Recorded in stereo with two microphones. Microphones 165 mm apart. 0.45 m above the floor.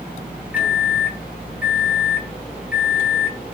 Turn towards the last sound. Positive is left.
turn(degrees=-10)  # may be behind; listen again after turning